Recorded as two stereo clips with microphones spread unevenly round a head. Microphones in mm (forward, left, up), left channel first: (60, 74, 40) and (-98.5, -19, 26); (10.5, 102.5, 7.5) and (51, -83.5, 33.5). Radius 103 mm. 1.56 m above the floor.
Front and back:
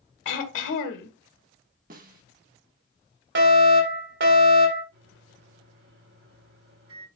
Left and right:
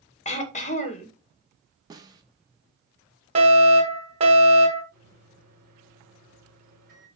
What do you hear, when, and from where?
0.2 s throat clearing: 50° left, 2 m
1.9 s a snare drum: 125° right, 1.2 m
3.4 s a fire alarm: 140° right, 3.5 m
4.9 s a microwave: 125° right, 5.5 m